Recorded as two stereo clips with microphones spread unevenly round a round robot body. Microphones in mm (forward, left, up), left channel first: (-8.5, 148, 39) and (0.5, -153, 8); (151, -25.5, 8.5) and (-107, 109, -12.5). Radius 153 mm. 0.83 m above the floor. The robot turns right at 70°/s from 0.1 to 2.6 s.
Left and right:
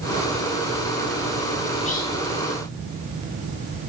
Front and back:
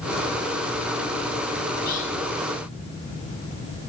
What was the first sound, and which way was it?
Whispering, 15° left.